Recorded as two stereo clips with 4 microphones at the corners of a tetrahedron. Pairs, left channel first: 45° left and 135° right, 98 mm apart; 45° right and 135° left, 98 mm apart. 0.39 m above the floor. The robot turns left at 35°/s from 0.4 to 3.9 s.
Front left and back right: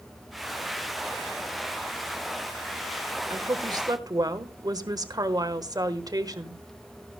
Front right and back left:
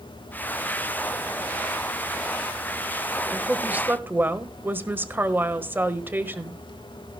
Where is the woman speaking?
145° right, 1.2 m; by 6.6 s 165° right, 1.2 m.